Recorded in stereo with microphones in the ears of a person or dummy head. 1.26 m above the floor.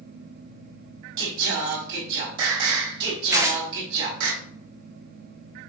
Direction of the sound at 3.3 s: 10° right (ahead or behind).